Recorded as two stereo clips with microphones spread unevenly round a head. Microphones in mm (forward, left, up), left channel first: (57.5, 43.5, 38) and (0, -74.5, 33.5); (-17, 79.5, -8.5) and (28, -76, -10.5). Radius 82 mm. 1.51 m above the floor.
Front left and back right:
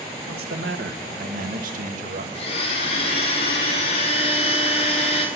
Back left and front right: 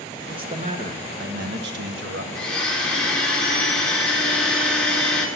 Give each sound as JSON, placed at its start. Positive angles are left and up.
{"t": 0.3, "sound": "a man speaking", "azimuth_deg": -140, "distance_m": 1.5}
{"t": 2.4, "sound": "a blender", "azimuth_deg": 20, "distance_m": 3.0}